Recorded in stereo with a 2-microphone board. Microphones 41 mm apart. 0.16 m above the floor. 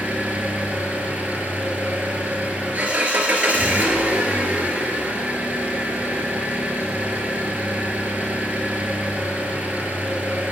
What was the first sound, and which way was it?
An engine running, 40° right (ahead or behind).